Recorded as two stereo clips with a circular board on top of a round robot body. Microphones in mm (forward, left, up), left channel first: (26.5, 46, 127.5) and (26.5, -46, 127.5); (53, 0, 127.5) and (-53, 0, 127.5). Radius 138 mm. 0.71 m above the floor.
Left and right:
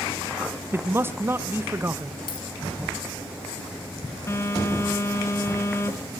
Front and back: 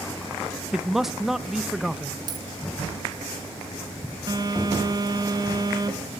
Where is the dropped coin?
130° left, 0.8 m.